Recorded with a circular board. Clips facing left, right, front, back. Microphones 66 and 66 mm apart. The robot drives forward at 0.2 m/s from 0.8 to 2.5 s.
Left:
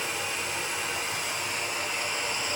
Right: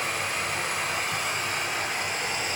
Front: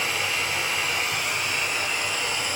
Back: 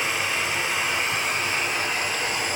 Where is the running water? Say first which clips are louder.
Right 3 dB, back 1 dB; 115° right, 0.8 m; by 2.6 s 135° right, 0.9 m.